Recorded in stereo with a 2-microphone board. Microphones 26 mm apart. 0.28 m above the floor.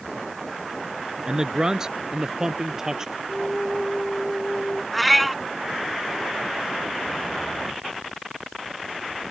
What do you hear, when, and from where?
1.3 s a man speaking: 25° right (ahead or behind); by 3.2 s 20° right (ahead or behind)
3.3 s a flute: 40° left (ahead or behind)
4.9 s a cat meowing: centre (ahead or behind)